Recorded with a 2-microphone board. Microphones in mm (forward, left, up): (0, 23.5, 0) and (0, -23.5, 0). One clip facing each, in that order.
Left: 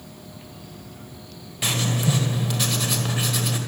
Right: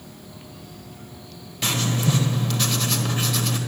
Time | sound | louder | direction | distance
1.6 | writing | even | 10° left (ahead or behind) | 1.8 m